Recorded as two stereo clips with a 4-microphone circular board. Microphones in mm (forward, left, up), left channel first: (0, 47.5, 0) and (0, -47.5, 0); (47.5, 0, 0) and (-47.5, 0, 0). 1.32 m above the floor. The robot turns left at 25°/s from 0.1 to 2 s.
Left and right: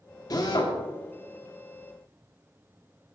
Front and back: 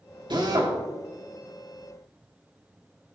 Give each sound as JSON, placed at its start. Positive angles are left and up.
{"t": 0.3, "sound": "a drill", "azimuth_deg": 140, "distance_m": 2.5}